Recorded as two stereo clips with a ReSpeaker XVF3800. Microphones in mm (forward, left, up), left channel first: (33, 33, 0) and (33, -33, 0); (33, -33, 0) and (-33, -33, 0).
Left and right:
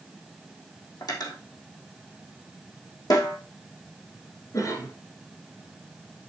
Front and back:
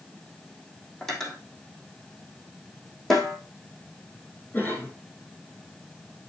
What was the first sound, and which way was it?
Cutlery clinking, 85° left.